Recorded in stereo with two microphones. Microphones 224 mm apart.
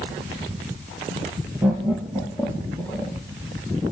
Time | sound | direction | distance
1.6 | laughter | centre (ahead or behind) | 4.5 m